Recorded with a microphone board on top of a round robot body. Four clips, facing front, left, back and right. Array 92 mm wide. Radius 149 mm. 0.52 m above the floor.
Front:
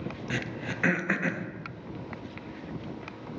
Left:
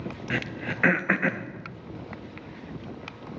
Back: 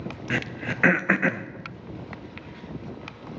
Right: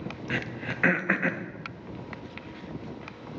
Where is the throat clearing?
170° left, 0.8 m.